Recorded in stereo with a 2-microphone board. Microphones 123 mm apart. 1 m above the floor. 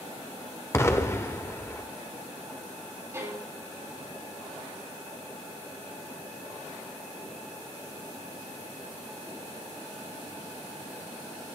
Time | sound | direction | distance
0.7 | an explosion | 20° left (ahead or behind) | 0.9 m
3.1 | a violin | 25° right (ahead or behind) | 3.5 m